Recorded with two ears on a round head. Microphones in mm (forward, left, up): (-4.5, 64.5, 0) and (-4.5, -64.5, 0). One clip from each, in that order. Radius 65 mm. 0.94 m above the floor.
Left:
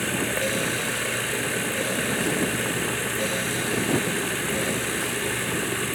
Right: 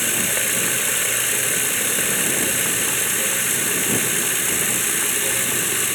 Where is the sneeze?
I don't hear a sneeze.